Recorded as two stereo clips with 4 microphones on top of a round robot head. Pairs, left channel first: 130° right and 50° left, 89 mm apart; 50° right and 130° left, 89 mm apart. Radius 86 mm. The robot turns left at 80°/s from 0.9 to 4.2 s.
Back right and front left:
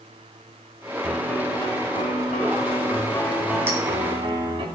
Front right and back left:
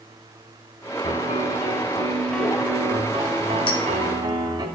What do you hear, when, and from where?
1.0 s a piano: 30° right, 2.5 m; by 4.7 s 80° left, 2.5 m
3.7 s a clink: 15° right, 1.6 m; by 3.8 s 25° right, 1.6 m